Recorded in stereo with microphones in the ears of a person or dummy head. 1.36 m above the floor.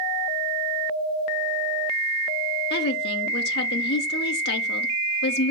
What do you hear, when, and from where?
2.7 s a woman speaking: 50° left (ahead or behind), 0.7 m